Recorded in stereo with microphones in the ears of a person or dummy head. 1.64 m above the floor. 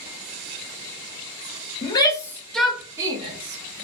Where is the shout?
25° left (ahead or behind), 0.9 m; by 3.8 s 45° right (ahead or behind), 0.9 m.